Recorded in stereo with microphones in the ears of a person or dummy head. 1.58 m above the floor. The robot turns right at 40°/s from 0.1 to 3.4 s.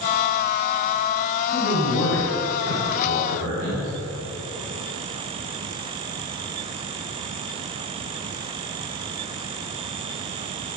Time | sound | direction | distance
1.5 | a man speaking | 155° left | 3.5 m